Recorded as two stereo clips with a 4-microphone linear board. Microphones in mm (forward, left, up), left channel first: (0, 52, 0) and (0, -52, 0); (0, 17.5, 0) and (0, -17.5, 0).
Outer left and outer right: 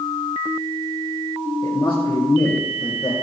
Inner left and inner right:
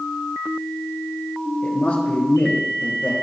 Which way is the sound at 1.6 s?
40° left (ahead or behind).